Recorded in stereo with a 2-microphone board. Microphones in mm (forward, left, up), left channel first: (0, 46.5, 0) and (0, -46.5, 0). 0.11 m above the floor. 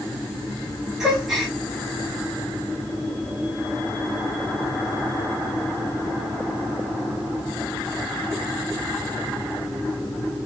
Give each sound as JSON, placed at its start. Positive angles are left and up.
{"t": 1.0, "sound": "a gasp", "side_deg": 0, "distance_m": 1.3}